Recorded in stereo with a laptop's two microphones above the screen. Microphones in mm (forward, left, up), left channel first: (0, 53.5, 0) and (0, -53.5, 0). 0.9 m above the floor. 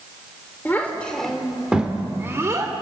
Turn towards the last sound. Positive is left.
turn(degrees=-35)  # may be behind; listen again after turning